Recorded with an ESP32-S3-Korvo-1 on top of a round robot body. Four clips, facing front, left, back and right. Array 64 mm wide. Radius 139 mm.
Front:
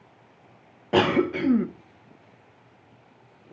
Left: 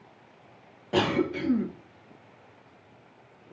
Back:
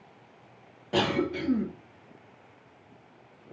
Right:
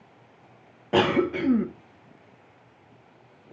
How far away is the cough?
About 0.7 m.